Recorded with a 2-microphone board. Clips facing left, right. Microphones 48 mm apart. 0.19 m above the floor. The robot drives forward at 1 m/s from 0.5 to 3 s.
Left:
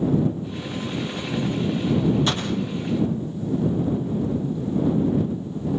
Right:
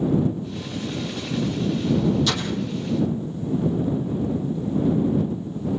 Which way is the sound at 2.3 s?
30° left (ahead or behind).